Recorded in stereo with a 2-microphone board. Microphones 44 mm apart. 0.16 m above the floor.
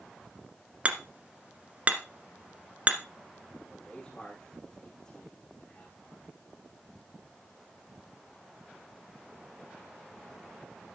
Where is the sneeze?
No sneeze in this recording.